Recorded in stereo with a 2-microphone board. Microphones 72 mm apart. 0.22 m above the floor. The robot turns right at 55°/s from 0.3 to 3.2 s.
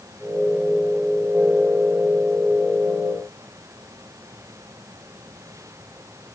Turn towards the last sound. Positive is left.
No sound to turn to.